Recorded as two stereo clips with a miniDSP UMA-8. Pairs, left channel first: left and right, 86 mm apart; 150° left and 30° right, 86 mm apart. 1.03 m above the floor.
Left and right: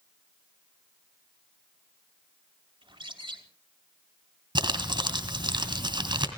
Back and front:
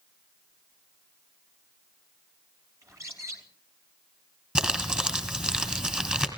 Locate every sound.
2.8 s a bird: 85° right, 3 m
4.5 s crumpling: 110° right, 2.5 m